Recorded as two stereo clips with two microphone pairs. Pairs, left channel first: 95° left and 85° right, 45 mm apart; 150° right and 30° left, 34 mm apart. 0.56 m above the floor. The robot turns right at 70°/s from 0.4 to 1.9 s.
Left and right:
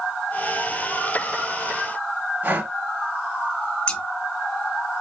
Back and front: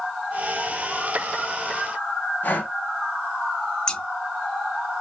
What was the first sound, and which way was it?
Breathing, 130° right.